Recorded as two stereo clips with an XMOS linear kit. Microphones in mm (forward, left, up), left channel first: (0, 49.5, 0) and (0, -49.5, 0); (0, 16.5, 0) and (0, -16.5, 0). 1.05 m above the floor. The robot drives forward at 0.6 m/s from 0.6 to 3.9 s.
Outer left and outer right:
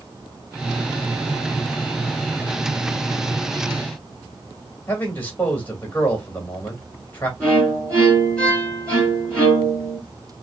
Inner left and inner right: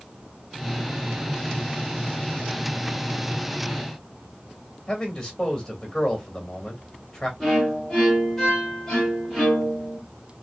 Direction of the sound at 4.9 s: 20° left (ahead or behind).